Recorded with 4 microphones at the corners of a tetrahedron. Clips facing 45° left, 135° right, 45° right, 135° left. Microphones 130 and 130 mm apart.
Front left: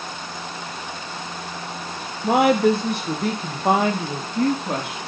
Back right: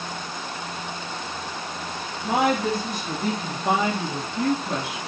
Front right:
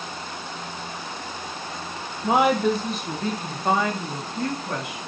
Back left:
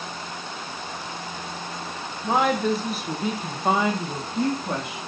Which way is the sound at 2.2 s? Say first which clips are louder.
Front left 6 dB, front right 2 dB; 25° left.